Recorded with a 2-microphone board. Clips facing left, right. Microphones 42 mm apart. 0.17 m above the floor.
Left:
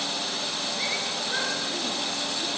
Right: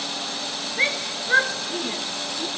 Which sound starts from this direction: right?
A shout, at 0.8 s.